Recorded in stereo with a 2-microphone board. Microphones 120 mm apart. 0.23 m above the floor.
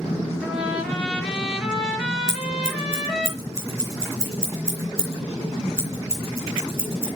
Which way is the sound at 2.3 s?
25° right (ahead or behind).